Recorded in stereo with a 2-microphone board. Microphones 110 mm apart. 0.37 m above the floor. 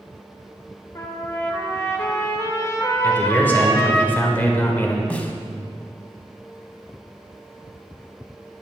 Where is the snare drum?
15° left (ahead or behind), 0.5 m.